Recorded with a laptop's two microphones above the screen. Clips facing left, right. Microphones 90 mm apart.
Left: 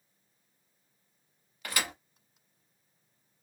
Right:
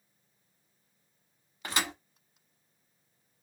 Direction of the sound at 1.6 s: 25° right (ahead or behind).